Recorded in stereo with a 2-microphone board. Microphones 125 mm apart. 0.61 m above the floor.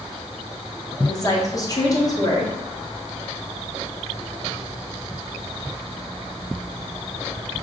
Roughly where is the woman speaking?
Left.